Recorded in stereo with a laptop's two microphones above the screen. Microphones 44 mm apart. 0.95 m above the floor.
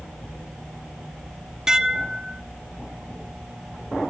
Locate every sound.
1.7 s dishes clattering: 15° right (ahead or behind), 1.0 m